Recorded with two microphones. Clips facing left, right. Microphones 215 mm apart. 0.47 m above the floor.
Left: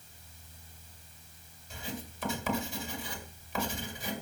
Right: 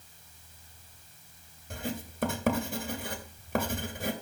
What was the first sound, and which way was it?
Writing, 55° right (ahead or behind).